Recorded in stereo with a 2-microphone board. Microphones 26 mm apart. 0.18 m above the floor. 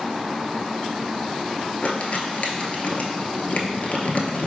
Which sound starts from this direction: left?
Crumpling, at 1.8 s.